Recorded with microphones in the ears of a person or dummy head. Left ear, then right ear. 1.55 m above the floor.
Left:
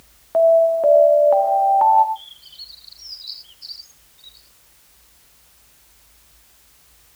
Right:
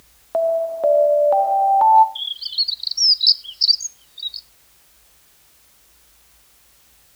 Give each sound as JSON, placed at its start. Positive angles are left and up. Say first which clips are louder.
{"t": 0.3, "sound": "an alarm", "louder": "left 6 dB", "side_deg": -20, "distance_m": 1.0}
{"t": 2.1, "sound": "a bird", "louder": "right 16 dB", "side_deg": -75, "distance_m": 0.6}